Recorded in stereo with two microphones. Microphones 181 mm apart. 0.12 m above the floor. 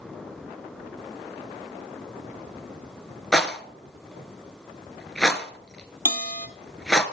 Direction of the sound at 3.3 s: Centre (ahead or behind).